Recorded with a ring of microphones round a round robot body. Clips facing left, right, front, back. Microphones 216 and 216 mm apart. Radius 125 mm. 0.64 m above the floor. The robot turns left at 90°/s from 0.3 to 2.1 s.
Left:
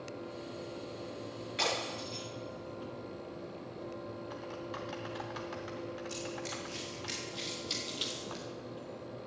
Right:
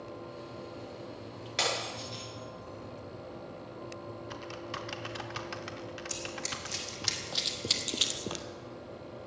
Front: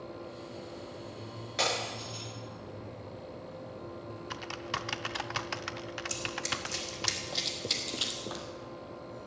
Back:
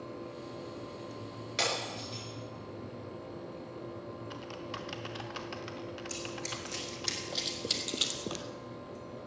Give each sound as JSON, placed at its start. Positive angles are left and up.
{"t": 1.6, "sound": "breaking glass", "azimuth_deg": -120, "distance_m": 6.5}
{"t": 4.3, "sound": "typing on a keyboard", "azimuth_deg": -30, "distance_m": 0.7}
{"t": 6.1, "sound": "running footsteps", "azimuth_deg": -75, "distance_m": 2.5}